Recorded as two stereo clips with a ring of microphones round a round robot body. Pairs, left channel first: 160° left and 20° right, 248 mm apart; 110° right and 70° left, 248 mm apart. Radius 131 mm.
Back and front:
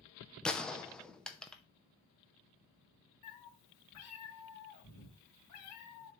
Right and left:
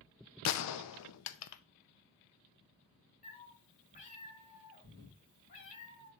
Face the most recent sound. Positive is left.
turn(degrees=-175)